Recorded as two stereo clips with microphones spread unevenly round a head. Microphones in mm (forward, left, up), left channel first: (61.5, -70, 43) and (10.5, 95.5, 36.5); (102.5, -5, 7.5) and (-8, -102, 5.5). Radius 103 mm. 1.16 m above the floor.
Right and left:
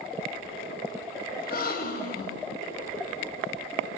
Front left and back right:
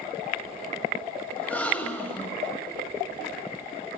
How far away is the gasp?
About 7.5 m.